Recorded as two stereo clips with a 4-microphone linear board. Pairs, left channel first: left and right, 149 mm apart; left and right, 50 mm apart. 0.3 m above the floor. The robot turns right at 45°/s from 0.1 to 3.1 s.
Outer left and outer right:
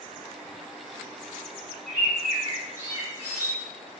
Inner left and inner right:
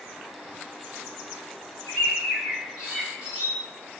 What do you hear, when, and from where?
1.9 s a bird: 10° right (ahead or behind), 1.4 m; by 3.5 s 20° right (ahead or behind), 1.4 m